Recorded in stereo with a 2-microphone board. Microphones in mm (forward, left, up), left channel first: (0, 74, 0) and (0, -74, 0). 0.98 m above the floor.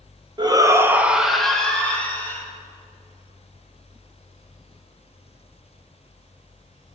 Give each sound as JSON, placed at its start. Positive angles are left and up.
{"t": 0.4, "sound": "a shout", "side_deg": -30, "distance_m": 0.7}